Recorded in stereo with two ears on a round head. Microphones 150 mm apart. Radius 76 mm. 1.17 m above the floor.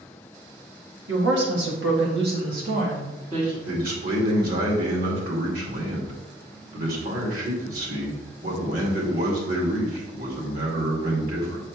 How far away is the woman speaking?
About 2.5 m.